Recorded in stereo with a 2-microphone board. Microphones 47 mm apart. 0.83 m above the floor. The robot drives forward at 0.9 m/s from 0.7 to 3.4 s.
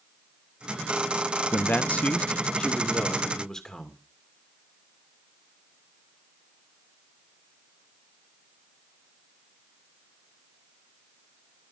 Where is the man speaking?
45° left (ahead or behind), 0.5 m; by 4.0 s 10° left (ahead or behind), 2.0 m.